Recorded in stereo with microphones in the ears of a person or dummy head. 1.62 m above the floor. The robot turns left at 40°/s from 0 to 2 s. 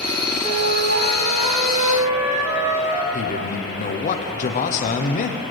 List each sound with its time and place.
0.4 s a flute: 100° right, 2.0 m; by 3.0 s 160° right, 2.0 m
3.1 s a man speaking: 45° left (ahead or behind), 0.8 m